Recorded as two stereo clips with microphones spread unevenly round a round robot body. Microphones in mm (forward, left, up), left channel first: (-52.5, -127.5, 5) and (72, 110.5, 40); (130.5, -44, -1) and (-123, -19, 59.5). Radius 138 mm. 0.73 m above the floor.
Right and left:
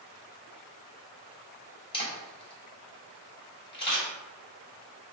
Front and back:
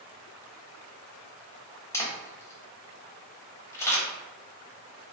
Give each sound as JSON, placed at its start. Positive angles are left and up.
{"t": 1.9, "sound": "a camera shutter", "azimuth_deg": -65, "distance_m": 1.1}